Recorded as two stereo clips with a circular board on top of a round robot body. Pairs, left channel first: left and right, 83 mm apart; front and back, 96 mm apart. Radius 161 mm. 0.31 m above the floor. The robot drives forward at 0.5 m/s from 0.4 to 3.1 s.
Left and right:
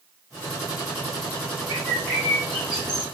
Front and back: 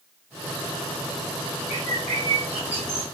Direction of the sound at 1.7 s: Straight behind.